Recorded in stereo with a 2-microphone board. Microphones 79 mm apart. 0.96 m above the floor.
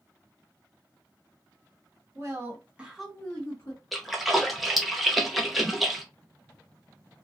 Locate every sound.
2.1 s a woman speaking: 40° right (ahead or behind), 1.0 m; by 3.8 s 40° left (ahead or behind), 0.9 m
3.9 s a splash: centre (ahead or behind), 0.6 m